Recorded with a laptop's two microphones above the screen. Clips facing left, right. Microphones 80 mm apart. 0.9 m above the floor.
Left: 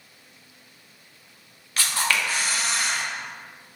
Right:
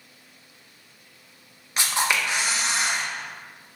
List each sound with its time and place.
1.8 s a camera shutter: 20° right (ahead or behind), 0.6 m